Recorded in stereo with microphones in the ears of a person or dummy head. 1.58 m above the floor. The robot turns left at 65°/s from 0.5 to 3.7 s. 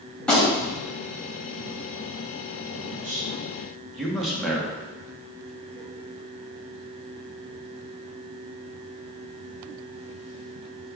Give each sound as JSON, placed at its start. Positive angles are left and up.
{"t": 0.2, "sound": "a gunshot", "side_deg": 5, "distance_m": 2.0}
{"t": 2.7, "sound": "a man speaking", "side_deg": -60, "distance_m": 1.8}